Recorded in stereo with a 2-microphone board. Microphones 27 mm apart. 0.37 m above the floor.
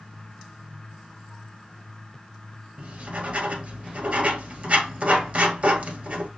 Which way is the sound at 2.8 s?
40° right (ahead or behind).